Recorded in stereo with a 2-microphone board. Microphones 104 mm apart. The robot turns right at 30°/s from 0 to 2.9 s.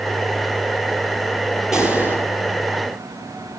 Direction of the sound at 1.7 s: 5° right (ahead or behind).